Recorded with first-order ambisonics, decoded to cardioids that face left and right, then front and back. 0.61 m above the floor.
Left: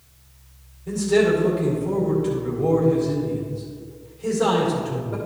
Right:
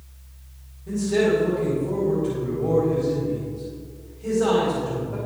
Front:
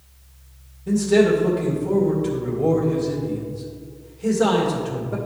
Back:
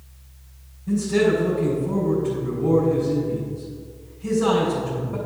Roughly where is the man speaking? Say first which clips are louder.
Left 2 dB, front 3 dB; ahead.